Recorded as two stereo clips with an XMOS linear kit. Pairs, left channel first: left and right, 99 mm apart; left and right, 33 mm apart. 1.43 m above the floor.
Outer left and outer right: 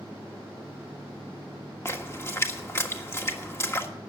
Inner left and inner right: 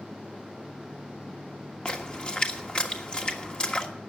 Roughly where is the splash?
Left.